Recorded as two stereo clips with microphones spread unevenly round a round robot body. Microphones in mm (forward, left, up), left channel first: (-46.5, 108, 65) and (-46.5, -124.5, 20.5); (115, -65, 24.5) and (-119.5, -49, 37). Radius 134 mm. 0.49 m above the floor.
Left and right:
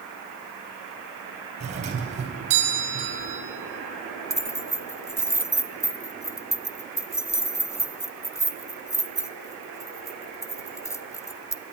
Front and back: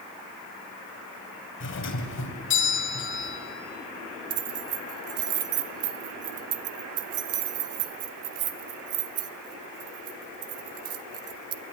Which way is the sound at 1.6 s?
35° right.